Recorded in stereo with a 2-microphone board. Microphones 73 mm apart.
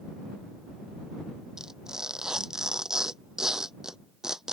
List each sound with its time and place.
1.6 s tearing paper: 10° right (ahead or behind)